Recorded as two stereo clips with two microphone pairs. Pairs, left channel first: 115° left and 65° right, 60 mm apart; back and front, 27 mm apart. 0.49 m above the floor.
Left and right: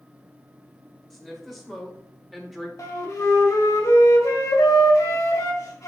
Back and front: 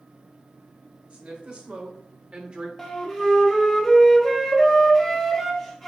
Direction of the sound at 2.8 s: 100° left.